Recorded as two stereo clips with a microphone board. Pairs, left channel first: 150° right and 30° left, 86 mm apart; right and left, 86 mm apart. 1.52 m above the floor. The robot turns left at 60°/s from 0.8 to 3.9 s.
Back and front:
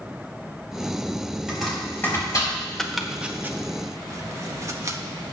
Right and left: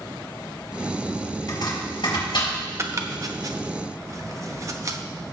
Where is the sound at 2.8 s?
130° left, 0.7 m; by 5.0 s 60° left, 0.7 m.